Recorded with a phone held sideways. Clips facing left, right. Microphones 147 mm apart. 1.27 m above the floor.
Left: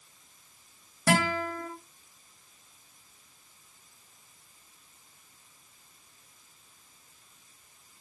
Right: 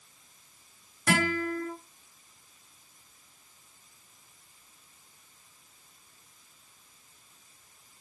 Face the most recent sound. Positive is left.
turn(degrees=30)  # may be behind; listen again after turning